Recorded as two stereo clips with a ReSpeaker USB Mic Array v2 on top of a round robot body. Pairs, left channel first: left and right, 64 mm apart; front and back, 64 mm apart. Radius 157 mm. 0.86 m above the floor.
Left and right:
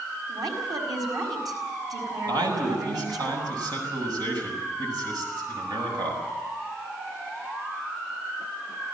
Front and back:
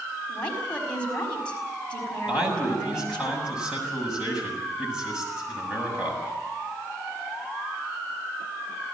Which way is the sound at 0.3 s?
70° right.